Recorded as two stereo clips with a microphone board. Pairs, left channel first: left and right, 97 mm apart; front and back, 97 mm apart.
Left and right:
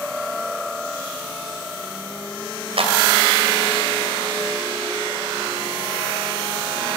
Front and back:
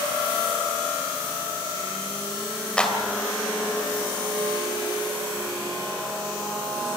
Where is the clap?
80° right, 3 m.